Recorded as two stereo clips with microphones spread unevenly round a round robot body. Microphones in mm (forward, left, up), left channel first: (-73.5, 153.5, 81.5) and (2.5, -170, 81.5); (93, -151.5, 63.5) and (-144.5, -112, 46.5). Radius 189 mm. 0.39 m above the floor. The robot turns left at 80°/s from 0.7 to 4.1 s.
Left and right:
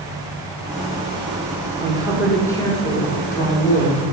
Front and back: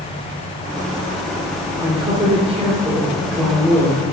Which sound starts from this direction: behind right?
A woman speaking, at 1.8 s.